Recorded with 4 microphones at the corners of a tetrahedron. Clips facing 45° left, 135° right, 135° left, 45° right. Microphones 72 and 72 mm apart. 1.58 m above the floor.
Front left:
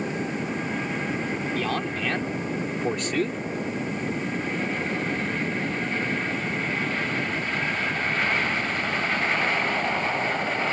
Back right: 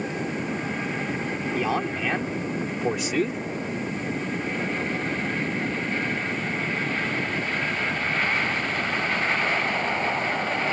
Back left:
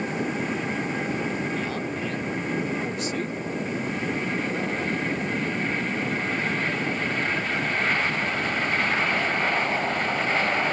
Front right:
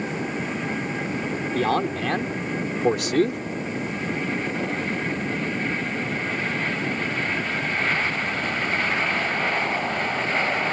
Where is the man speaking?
60° right; by 3.4 s 50° right.